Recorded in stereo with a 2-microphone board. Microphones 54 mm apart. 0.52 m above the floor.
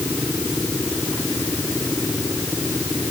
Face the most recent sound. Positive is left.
No sound to turn to.